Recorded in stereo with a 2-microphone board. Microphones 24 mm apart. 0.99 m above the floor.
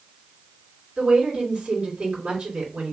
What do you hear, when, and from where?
1.0 s a woman speaking: 60° right (ahead or behind), 3 m